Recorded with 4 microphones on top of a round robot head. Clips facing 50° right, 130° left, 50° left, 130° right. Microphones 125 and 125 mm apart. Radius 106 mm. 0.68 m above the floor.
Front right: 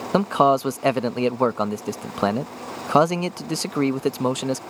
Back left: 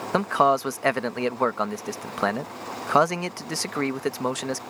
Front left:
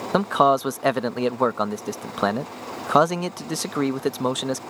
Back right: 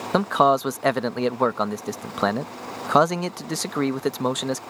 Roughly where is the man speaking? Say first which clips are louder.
Front right 3 dB, even; ahead right.